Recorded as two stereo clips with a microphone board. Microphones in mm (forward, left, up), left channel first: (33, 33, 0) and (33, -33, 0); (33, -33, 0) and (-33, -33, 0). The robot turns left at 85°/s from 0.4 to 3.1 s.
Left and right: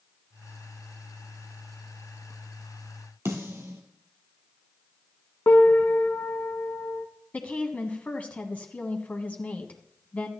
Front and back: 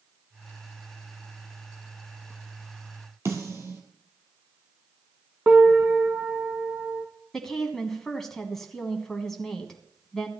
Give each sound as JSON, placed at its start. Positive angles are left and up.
{"t": 3.2, "sound": "a snare drum", "azimuth_deg": -135, "distance_m": 2.5}
{"t": 5.5, "sound": "a piano", "azimuth_deg": 130, "distance_m": 1.4}
{"t": 7.3, "sound": "a woman speaking", "azimuth_deg": 75, "distance_m": 1.4}